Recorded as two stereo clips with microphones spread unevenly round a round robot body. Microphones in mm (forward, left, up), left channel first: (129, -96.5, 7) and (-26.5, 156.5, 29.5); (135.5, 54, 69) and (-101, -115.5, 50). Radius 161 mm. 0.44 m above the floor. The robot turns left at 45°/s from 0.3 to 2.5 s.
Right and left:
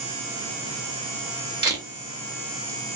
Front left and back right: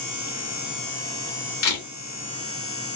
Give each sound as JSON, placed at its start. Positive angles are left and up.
{"t": 1.6, "sound": "a camera shutter", "azimuth_deg": 45, "distance_m": 2.0}